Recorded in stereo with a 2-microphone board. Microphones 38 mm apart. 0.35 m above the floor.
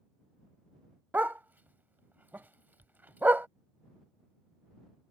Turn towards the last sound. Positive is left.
turn(degrees=-60)  # may be behind; listen again after turning